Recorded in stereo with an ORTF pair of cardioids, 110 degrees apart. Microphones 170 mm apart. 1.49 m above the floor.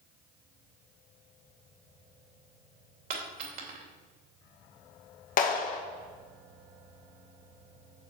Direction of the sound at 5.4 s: 55° left.